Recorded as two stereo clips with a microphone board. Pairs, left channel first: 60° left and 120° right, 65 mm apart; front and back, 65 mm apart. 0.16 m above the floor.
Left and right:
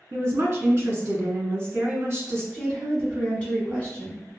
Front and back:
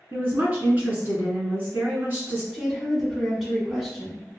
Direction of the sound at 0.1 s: 145° right.